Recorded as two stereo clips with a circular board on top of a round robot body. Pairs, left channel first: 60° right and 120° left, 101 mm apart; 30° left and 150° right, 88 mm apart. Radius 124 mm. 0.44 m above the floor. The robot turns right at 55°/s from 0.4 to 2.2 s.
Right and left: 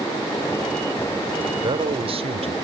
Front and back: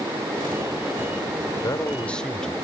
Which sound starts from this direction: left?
A man speaking, at 1.6 s.